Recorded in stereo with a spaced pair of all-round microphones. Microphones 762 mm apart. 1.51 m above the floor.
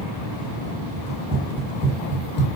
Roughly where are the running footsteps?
Centre.